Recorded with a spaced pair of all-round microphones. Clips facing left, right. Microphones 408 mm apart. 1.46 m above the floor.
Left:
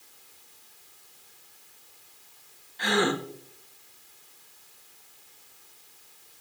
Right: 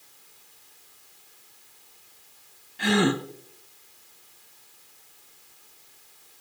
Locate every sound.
2.8 s a gasp: 45° right (ahead or behind), 1.0 m